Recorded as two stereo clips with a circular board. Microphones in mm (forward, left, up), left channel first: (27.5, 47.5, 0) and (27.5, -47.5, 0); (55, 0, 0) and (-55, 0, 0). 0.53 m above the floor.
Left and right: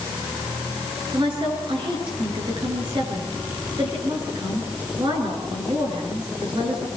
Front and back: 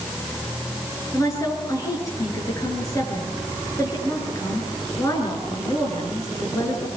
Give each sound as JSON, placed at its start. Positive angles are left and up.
{"t": 1.1, "sound": "a woman speaking", "azimuth_deg": -60, "distance_m": 9.5}